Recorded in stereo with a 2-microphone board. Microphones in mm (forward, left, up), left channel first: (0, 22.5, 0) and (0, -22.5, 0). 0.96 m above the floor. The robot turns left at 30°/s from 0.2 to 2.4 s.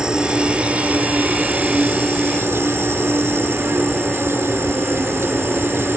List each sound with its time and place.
0.0 s an insect: 20° right; by 6.0 s 85° right